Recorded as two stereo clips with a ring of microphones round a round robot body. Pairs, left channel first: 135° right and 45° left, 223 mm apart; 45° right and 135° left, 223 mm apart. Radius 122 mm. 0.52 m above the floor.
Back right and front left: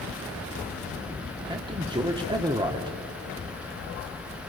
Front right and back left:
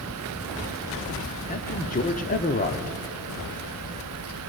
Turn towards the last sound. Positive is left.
turn(degrees=-15)